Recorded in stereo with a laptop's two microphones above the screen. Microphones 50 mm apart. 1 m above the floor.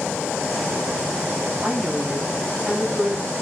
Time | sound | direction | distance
1.6 | a woman speaking | 20° right (ahead or behind) | 7.5 m